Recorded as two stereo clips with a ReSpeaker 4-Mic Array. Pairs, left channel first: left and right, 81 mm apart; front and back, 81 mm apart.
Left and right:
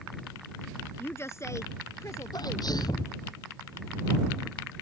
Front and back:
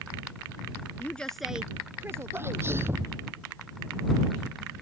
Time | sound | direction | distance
1.0 | a woman speaking | 50° left | ?
2.3 | a sneeze | 120° left | ?